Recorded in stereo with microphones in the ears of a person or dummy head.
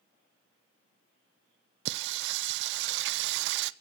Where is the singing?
65° right (ahead or behind), 0.6 m.